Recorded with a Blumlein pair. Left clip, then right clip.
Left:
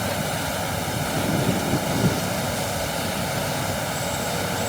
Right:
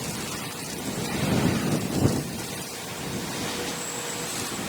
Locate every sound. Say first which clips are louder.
0.0 s a fan: left 7 dB; 45° left